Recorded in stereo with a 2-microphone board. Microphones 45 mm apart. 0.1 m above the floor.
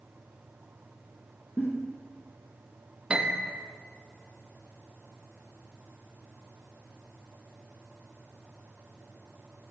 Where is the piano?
20° right (ahead or behind), 2 m.